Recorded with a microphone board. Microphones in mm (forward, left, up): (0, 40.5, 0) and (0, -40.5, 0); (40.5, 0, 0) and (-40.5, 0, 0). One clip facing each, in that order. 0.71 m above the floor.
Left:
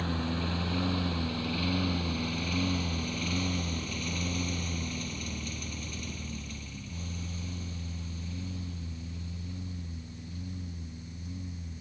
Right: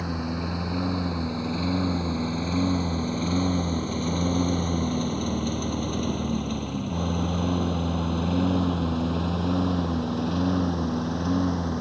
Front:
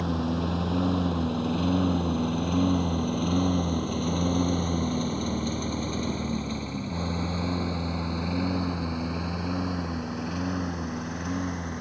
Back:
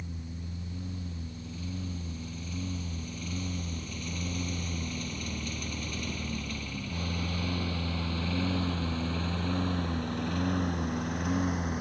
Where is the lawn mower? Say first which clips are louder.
Right 3 dB, front 16 dB; 10° right; by 11.8 s 90° right.